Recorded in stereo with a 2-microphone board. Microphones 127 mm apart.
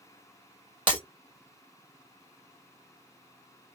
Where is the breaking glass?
40° right (ahead or behind), 1.9 m.